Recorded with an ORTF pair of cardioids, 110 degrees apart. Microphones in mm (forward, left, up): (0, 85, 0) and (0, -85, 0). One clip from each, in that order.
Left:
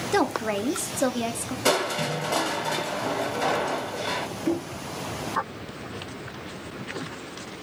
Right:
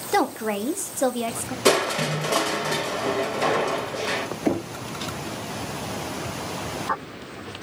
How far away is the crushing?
About 1.3 m.